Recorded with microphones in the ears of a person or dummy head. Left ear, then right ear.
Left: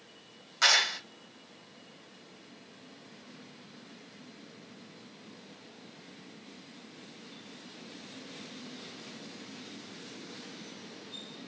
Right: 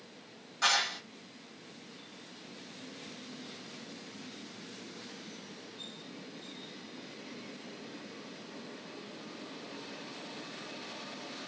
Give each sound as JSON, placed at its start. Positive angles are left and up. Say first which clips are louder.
{"t": 0.6, "sound": "a clap", "louder": "left 4 dB", "side_deg": 55, "distance_m": 2.0}